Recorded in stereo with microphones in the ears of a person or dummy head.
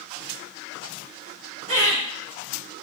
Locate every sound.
1.7 s laughter: 35° right (ahead or behind), 2 m